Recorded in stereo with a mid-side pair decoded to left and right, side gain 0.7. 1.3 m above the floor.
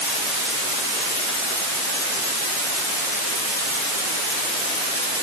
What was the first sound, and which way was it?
Only background noise.